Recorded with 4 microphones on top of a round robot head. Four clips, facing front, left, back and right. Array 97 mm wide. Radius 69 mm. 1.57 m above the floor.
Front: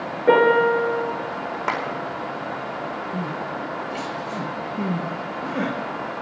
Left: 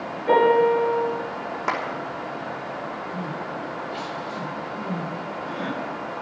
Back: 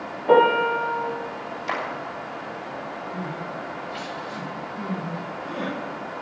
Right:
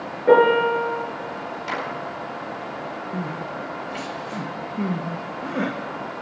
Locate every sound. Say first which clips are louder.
0.3 s a piano: right 2 dB, front 1 dB; 30° right, 5 m
1.7 s a clap: left 3 dB, front 3 dB; 40° left, 5 m
3.1 s crying: right 1 dB, front 4 dB; 50° right, 1.8 m